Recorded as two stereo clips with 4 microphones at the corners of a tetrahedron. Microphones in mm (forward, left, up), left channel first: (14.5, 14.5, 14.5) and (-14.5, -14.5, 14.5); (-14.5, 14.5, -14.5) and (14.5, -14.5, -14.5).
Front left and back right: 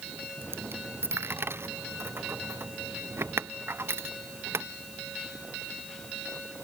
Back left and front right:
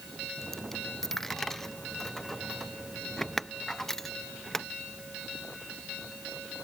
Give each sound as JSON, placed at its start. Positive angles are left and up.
{"t": 0.4, "sound": "a dropped coin", "azimuth_deg": -140}